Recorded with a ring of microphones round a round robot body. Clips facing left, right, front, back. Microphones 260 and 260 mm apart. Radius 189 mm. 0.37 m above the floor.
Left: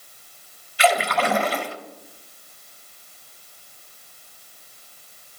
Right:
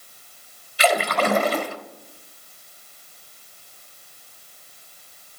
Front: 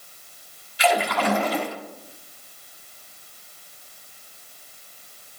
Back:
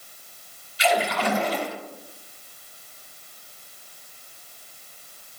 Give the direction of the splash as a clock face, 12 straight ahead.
1 o'clock.